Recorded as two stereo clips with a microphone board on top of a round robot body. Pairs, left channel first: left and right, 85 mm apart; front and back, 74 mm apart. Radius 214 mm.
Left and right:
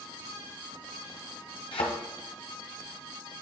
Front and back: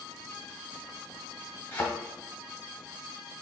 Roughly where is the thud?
Ahead left.